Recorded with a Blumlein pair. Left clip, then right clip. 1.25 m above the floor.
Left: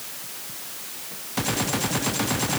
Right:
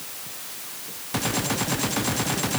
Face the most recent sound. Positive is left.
No sound to turn to.